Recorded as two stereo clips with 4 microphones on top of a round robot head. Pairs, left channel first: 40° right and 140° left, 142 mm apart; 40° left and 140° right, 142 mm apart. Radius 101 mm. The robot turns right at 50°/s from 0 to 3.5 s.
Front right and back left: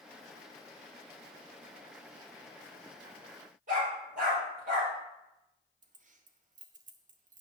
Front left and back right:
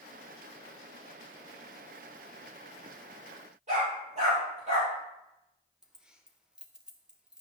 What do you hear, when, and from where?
3.7 s a dog barking: 175° left, 3.5 m
5.8 s keys jangling: 135° left, 0.8 m